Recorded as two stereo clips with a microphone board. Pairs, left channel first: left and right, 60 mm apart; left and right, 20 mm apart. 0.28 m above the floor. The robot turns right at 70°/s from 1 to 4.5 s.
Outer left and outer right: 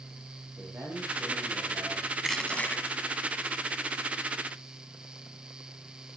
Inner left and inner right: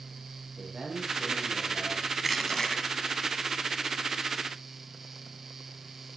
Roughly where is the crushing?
Ahead.